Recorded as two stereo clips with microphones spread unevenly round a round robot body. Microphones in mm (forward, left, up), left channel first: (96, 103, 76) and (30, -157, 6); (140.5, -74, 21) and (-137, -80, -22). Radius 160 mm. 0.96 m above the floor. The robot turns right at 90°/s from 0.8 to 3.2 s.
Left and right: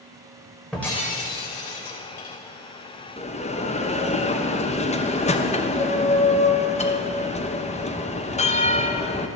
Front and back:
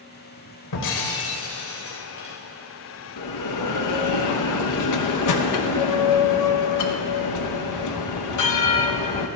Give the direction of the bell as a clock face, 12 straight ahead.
12 o'clock.